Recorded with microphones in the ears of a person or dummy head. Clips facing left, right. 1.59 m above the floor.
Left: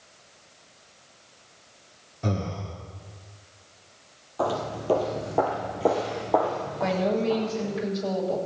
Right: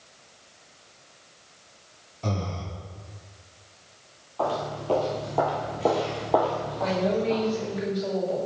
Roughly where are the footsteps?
Left.